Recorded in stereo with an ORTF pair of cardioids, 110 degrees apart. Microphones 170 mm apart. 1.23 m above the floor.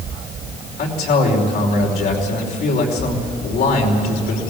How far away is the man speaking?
About 5 m.